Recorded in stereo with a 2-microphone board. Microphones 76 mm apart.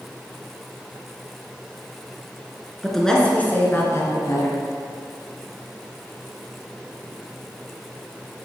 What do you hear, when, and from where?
2.8 s a woman speaking: centre (ahead or behind), 1.9 m; by 4.6 s 55° left (ahead or behind), 2 m